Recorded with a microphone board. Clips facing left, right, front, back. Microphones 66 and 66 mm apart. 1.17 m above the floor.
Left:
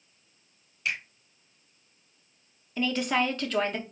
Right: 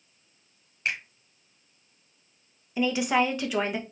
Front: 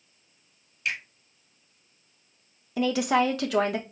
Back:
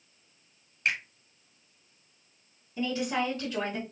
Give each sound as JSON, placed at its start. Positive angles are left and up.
{"t": 0.8, "sound": "a finger snap", "azimuth_deg": -140, "distance_m": 1.5}
{"t": 2.8, "sound": "a woman speaking", "azimuth_deg": -10, "distance_m": 0.8}